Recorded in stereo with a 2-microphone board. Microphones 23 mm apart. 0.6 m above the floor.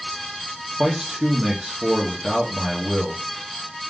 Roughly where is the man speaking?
Right.